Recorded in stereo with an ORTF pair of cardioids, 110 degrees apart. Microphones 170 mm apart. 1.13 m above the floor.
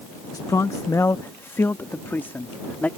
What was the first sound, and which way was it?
A man speaking, 20° left.